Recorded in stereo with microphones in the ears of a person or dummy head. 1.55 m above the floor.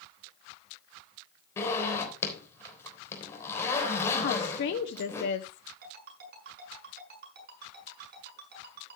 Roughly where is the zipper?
Centre.